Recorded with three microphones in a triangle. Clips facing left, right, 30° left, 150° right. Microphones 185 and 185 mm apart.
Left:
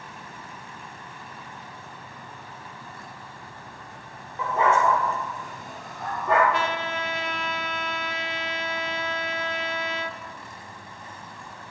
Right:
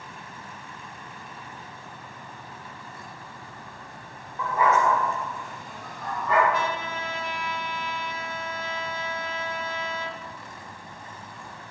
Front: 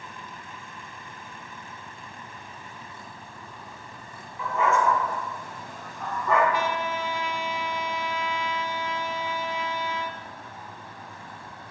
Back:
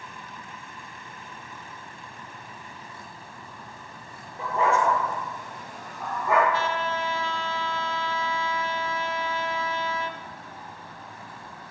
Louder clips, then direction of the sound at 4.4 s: Left 1 dB, even; 160° left.